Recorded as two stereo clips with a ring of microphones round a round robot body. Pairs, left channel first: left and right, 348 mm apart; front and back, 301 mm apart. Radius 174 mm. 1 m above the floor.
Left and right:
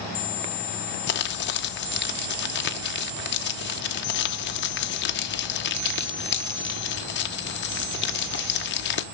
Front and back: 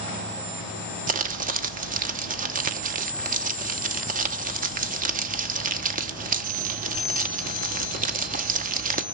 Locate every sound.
1.1 s crumpling: 130° left, 0.8 m